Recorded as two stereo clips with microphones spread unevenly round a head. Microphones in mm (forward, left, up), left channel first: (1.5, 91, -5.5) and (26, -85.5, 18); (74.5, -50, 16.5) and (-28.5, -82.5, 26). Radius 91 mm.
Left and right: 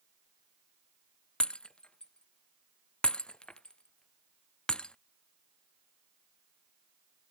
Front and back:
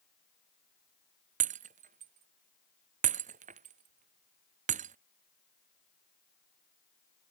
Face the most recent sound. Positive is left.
turn(degrees=-175)